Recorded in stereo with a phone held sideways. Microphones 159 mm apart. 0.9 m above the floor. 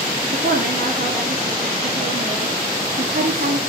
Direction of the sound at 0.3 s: 75° right (ahead or behind).